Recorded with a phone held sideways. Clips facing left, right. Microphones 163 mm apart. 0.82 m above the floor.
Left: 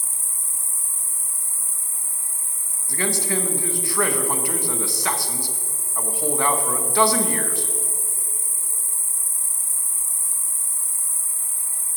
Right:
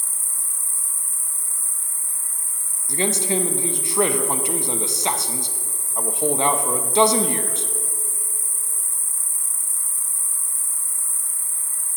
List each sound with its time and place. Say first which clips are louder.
0.0 s an insect: left 1 dB; 25° left (ahead or behind), 1.6 m
2.9 s a man speaking: right 2 dB; 20° right (ahead or behind), 0.8 m